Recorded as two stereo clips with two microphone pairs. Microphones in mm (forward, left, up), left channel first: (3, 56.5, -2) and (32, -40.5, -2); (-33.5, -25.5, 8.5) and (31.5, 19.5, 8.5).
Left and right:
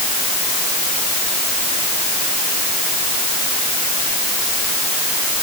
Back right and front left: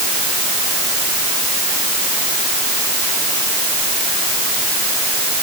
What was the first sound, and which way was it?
Only background noise.